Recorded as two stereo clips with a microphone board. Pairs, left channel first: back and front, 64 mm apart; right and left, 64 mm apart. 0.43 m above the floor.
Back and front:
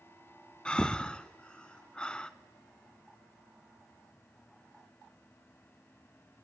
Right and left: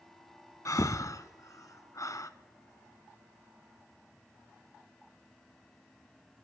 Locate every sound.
0.7 s breathing: 105° right, 0.6 m